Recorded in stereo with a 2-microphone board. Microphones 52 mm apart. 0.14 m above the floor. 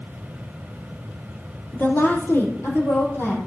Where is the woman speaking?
40° left (ahead or behind), 4 m; by 3.4 s 55° left (ahead or behind), 6 m.